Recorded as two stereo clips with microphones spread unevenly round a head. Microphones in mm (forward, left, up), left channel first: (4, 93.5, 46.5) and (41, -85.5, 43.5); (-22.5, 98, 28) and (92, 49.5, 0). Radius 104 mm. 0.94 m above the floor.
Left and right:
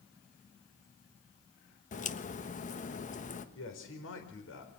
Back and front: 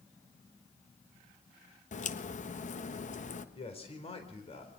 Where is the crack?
140° left, 1.4 m.